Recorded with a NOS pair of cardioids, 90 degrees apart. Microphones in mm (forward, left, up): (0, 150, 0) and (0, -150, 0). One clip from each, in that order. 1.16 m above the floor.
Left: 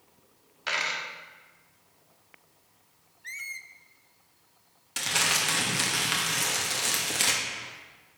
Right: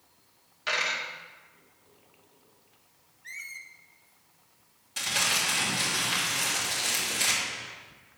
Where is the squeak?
20° left, 0.5 m.